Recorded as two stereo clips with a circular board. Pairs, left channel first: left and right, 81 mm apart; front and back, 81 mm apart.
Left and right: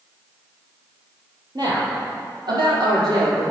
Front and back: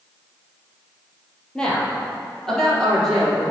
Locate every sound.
1.6 s a woman speaking: 80° right, 2.5 m; by 3.4 s 85° right, 3.5 m